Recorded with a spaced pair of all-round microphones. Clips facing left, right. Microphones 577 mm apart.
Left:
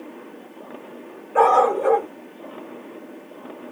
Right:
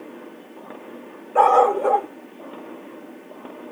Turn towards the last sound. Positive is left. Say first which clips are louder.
# even
turn(degrees=45)  # may be behind; listen again after turning